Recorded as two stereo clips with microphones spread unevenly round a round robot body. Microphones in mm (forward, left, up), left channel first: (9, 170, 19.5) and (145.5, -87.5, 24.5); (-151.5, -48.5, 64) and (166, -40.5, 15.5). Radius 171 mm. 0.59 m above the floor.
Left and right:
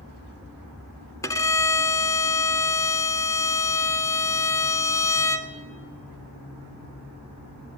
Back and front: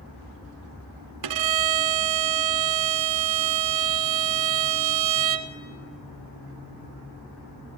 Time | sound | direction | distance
1.2 | a violin | 40° left | 1.1 m